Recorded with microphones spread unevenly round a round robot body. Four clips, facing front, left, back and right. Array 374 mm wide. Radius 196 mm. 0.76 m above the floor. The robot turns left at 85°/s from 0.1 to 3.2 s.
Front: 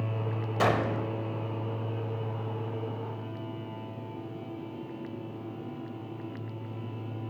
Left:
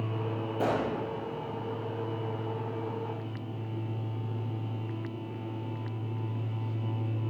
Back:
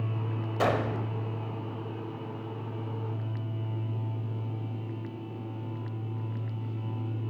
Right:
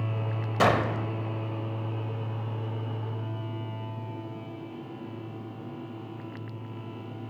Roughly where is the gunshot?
Right.